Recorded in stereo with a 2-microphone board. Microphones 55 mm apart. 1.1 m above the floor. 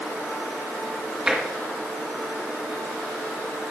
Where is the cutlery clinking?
No cutlery clinking in this recording.